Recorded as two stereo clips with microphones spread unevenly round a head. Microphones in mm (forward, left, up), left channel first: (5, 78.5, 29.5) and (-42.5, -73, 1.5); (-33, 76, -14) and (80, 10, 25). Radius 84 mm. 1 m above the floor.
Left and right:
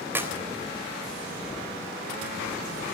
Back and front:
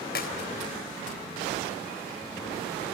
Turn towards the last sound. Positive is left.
turn(degrees=175)